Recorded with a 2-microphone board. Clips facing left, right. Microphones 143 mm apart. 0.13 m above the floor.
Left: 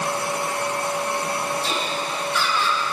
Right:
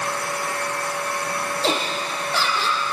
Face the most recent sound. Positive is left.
turn(degrees=-75)  # may be behind; listen again after turning